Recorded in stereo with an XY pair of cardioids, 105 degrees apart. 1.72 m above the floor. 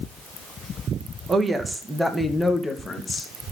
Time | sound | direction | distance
1.3 | a woman speaking | 30° right | 2.5 m